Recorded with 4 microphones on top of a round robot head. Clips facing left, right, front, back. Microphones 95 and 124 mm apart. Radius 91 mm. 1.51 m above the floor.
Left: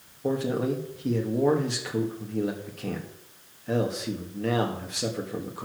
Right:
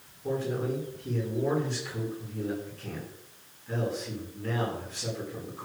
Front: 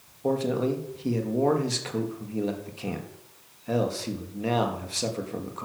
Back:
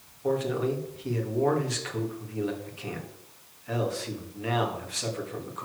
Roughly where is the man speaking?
Ahead left.